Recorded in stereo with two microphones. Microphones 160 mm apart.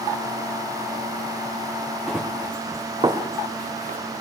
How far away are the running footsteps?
About 1.4 m.